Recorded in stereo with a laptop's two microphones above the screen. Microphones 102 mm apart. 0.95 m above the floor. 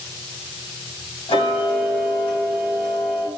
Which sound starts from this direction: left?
Ticking, at 1.3 s.